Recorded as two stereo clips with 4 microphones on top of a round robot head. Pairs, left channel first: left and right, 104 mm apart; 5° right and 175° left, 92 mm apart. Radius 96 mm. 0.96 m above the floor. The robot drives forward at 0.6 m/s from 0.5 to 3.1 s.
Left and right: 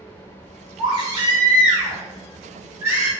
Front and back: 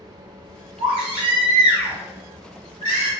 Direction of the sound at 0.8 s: 130° right.